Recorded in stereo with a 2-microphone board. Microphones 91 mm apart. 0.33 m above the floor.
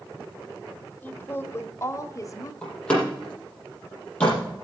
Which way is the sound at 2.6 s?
10° left (ahead or behind).